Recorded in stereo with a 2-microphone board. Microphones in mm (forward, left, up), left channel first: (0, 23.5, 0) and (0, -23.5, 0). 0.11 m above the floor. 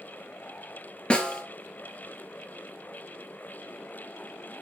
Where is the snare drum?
20° left (ahead or behind), 1.2 m.